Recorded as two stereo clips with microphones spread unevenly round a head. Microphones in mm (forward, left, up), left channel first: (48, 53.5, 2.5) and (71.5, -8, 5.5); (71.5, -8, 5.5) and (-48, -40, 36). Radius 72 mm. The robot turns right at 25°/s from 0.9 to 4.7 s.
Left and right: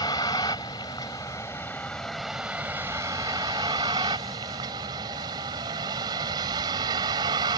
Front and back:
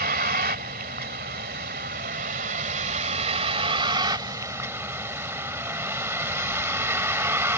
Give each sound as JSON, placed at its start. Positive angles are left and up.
{"t": 0.0, "sound": "a vehicle", "azimuth_deg": 165}